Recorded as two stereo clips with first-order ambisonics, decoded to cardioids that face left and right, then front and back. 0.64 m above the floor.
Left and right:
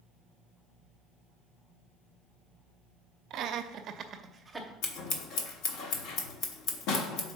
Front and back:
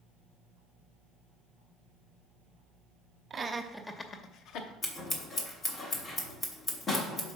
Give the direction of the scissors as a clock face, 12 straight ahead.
10 o'clock.